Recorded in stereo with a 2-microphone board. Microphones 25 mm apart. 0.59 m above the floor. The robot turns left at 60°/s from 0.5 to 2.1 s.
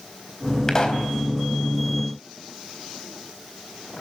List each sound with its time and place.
0.7 s a pop: 20° left (ahead or behind), 4 m; by 1.1 s 45° left (ahead or behind), 4 m